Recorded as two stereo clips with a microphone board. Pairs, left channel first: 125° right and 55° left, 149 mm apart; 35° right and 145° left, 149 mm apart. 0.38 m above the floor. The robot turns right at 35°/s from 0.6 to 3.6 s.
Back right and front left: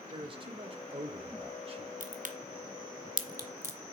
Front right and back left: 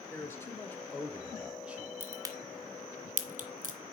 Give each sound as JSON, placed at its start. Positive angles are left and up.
{"t": 0.1, "sound": "a man speaking", "azimuth_deg": 30, "distance_m": 1.1}
{"t": 2.0, "sound": "a crack", "azimuth_deg": 70, "distance_m": 1.2}